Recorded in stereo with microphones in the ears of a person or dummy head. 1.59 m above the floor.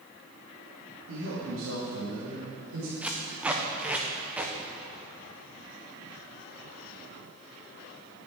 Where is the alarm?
No alarm in this recording.